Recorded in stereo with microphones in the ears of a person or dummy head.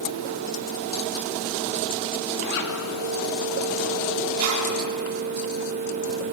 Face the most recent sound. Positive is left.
turn(degrees=-80)